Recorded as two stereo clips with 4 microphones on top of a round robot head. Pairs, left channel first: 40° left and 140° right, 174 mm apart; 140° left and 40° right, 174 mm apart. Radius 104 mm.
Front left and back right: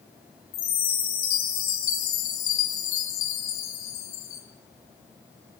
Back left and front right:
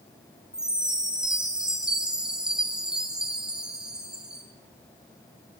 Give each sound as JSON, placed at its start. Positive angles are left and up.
{"t": 0.5, "sound": "a chime", "azimuth_deg": 45, "distance_m": 4.5}